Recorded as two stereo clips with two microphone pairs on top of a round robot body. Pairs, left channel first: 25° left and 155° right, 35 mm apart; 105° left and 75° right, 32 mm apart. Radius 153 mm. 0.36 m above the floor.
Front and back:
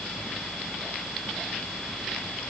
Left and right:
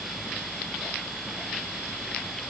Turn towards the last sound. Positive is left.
No sound to turn to.